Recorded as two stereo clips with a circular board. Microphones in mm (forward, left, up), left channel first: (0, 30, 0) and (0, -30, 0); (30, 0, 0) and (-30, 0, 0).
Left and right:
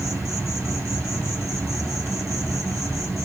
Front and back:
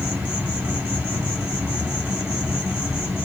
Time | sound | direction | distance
0.0 | an insect | 125° right | 4 m